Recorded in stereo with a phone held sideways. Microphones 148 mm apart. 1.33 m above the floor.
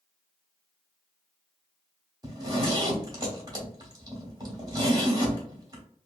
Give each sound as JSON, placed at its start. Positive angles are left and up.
{"t": 2.2, "sound": "a zipper", "side_deg": -25, "distance_m": 1.0}